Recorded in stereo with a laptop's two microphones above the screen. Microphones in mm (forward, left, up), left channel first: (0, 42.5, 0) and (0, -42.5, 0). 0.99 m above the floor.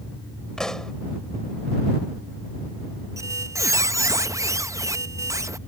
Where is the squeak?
35° right (ahead or behind).